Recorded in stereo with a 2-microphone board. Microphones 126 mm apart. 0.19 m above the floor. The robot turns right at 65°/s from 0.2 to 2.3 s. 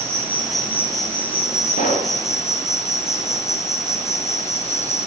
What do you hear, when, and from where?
0.0 s an insect: 20° right, 5 m; by 5.1 s 115° left, 5 m
1.7 s a pop: 85° left, 9.5 m; by 2.1 s 65° left (ahead or behind), 9.5 m